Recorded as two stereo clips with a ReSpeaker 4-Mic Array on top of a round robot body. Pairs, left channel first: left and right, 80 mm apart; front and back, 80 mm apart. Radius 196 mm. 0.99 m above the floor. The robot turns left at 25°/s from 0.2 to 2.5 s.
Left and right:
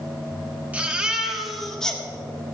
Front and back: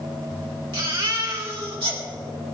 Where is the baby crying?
160° right, 1.9 m; by 2.0 s 165° left, 1.9 m.